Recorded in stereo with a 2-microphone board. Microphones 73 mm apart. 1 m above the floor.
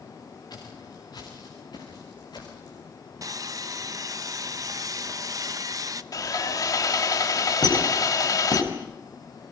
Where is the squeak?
70° left (ahead or behind), 4.5 m.